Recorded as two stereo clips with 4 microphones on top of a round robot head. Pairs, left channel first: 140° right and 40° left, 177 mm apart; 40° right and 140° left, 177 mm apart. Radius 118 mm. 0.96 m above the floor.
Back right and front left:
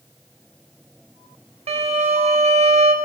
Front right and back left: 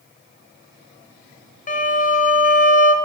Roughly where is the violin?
Ahead.